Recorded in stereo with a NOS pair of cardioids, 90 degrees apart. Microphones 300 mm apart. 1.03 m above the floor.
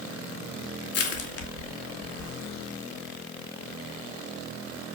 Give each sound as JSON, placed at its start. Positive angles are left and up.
{"t": 0.9, "sound": "crushing", "azimuth_deg": 55, "distance_m": 2.5}